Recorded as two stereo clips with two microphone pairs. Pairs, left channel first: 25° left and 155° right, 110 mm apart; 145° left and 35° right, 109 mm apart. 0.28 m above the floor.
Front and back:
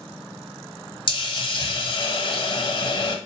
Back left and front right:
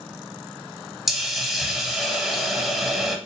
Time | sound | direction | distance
1.1 | a hiss | 55° left | 0.7 m